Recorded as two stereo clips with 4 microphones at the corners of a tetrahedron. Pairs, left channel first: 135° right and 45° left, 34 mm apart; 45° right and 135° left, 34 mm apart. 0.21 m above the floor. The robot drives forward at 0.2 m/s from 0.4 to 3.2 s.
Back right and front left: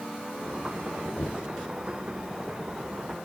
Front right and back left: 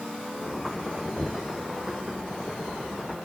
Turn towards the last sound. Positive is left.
turn(degrees=-160)